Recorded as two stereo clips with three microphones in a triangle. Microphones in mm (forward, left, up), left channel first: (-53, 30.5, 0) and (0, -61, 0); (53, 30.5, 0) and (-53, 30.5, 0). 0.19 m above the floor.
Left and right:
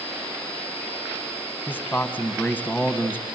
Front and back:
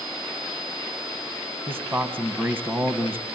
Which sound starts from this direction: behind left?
A man speaking, at 1.7 s.